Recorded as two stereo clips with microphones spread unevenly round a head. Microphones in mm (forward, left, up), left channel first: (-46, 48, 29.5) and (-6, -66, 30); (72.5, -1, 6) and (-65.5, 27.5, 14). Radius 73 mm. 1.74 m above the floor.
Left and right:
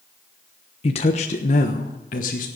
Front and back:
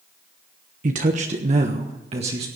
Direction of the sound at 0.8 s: 145° left.